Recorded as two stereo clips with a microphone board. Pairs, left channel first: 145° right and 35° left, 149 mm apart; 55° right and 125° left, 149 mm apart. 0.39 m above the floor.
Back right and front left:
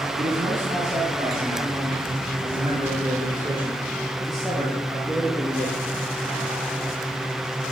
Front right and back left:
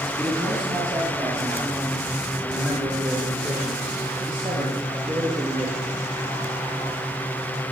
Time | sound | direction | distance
0.2 | a man speaking | 65° left | 4.5 m